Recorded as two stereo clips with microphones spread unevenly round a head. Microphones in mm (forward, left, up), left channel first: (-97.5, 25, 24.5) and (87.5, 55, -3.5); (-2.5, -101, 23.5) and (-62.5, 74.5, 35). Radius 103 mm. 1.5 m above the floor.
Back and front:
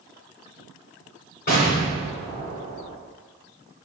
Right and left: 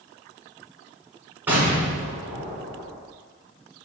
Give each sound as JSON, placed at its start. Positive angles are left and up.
{"t": 1.5, "sound": "an explosion", "azimuth_deg": -175, "distance_m": 2.5}